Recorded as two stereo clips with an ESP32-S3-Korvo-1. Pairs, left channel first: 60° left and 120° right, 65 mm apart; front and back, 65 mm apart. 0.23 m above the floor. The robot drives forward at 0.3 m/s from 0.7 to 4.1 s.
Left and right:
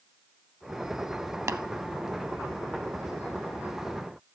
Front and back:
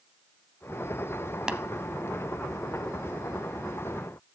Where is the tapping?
105° right, 0.5 m; by 1.6 s 110° right, 0.5 m.